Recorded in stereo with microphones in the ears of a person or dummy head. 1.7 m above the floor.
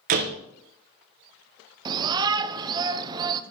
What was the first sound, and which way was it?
A door slam, 40° right (ahead or behind).